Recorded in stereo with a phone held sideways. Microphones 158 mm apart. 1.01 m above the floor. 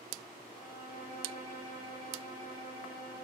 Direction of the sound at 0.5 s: 70° left (ahead or behind).